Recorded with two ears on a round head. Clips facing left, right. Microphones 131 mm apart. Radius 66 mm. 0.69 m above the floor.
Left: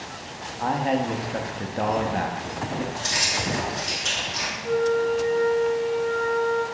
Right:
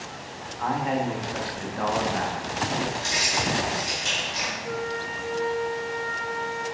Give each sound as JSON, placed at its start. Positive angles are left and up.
{"t": 0.6, "sound": "a man speaking", "side_deg": 35, "distance_m": 0.5}
{"t": 3.0, "sound": "keys jangling", "side_deg": -10, "distance_m": 1.9}
{"t": 4.6, "sound": "a flute", "side_deg": 10, "distance_m": 0.9}